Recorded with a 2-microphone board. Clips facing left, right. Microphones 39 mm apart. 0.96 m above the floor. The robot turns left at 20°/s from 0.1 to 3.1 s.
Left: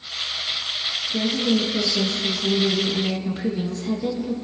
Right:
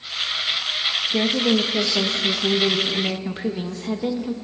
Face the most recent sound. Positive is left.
turn(degrees=-150)